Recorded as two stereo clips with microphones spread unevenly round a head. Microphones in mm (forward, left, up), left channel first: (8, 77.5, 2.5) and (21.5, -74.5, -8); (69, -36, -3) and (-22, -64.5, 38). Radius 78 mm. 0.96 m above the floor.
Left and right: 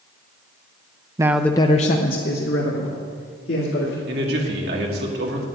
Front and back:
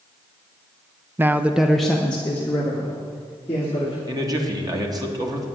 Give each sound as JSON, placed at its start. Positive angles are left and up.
{"t": 1.2, "sound": "a man speaking", "azimuth_deg": -70, "distance_m": 0.6}
{"t": 4.1, "sound": "a man speaking", "azimuth_deg": -105, "distance_m": 2.0}